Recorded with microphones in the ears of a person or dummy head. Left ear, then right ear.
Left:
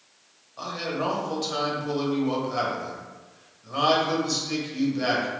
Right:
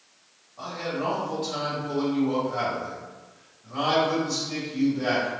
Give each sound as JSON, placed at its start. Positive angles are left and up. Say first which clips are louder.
{"t": 0.6, "sound": "a man speaking", "louder": "left 1 dB", "side_deg": 75, "distance_m": 0.8}